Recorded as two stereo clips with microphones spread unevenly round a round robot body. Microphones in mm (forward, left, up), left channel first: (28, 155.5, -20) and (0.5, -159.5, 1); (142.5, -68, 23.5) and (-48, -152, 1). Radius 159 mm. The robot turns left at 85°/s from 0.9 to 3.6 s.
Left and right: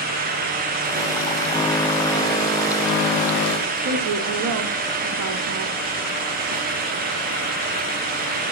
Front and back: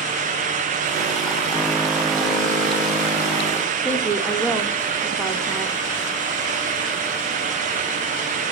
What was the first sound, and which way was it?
A woman speaking, 70° right.